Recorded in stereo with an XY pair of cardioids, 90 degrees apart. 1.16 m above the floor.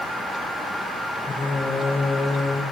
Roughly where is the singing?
Ahead left.